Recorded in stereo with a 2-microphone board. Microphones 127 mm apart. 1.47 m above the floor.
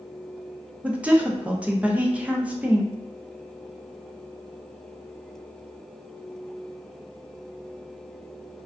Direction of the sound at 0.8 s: 10° right (ahead or behind).